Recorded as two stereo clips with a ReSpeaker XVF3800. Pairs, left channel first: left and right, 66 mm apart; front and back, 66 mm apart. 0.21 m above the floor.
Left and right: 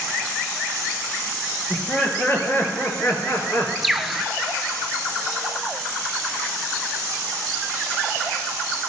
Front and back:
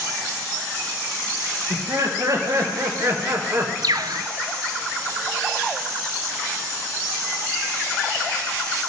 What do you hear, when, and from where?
1.7 s laughter: 155° left, 3.5 m; by 3.7 s 135° left, 3 m
3.8 s a bird: 175° right, 0.8 m